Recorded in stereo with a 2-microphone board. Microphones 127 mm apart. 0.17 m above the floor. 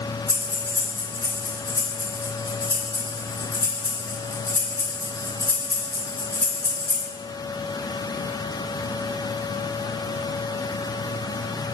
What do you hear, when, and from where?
0.3 s breathing: 25° left (ahead or behind), 2.5 m